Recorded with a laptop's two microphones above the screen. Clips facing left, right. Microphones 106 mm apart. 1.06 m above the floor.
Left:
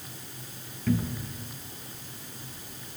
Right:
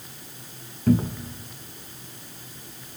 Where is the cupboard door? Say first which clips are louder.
Right 7 dB; 35° right (ahead or behind), 1.0 m.